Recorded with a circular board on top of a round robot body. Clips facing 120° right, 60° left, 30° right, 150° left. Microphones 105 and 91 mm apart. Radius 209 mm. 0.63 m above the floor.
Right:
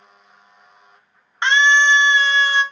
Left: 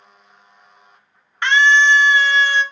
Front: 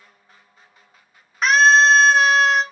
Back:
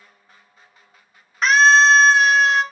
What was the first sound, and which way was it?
A scream, 115° right.